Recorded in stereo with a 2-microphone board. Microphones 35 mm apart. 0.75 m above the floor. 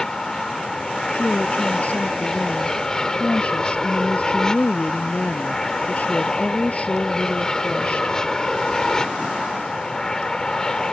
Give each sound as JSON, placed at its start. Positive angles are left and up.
{"t": 0.0, "sound": "an aircraft", "side_deg": 15}
{"t": 1.1, "sound": "a woman speaking", "side_deg": 50}